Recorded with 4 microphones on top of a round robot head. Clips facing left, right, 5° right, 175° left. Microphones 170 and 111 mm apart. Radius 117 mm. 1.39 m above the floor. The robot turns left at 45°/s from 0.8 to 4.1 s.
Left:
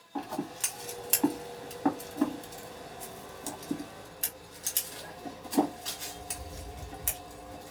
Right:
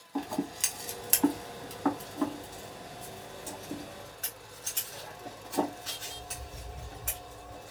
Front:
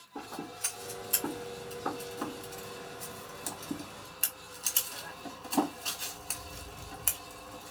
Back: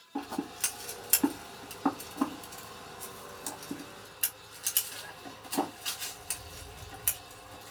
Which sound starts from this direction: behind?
Scissors, at 0.1 s.